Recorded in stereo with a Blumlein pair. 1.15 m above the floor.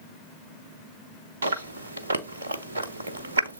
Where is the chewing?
70° right, 0.8 m.